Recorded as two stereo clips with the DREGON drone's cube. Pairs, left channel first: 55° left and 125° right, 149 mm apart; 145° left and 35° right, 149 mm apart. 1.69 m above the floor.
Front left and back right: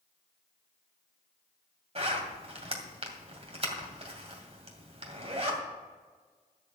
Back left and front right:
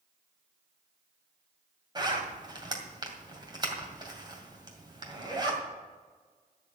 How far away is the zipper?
About 2.5 m.